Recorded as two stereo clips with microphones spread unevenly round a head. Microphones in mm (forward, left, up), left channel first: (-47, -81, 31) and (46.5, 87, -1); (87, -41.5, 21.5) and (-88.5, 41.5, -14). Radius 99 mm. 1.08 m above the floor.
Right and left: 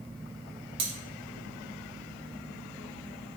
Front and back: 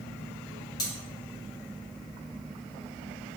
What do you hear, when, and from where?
0.8 s cutlery clinking: 45° left, 0.7 m